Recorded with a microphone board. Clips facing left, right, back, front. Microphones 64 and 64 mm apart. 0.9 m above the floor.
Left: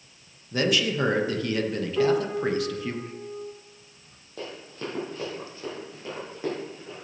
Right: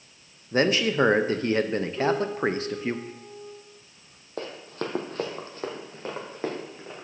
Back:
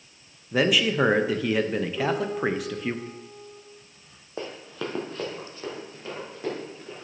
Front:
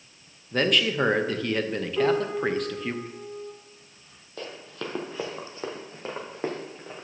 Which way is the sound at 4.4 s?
120° right.